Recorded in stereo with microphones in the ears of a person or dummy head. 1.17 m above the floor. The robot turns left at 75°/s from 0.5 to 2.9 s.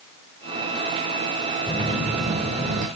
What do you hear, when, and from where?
1.7 s a phone buzzing: 15° left, 1.2 m; by 2.9 s 75° right, 1.2 m